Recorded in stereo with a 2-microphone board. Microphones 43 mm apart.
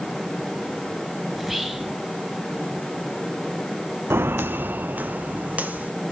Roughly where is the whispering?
Centre.